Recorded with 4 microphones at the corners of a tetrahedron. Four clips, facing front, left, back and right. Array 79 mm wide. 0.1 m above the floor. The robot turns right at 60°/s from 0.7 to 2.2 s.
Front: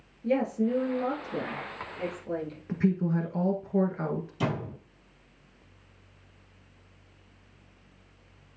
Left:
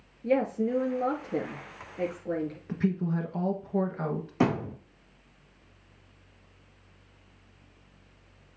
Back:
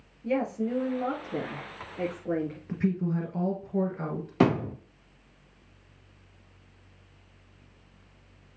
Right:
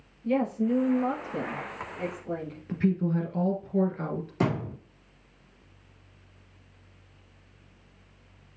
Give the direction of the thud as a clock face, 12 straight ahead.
6 o'clock.